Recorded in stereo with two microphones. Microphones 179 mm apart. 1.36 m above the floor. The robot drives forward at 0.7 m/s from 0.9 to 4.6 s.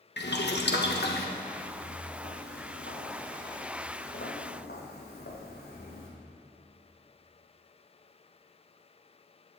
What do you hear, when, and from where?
0.2 s boiling: 70° left (ahead or behind), 1.2 m; by 1.3 s 60° left (ahead or behind), 1.3 m
1.5 s footsteps: 60° left (ahead or behind), 3 m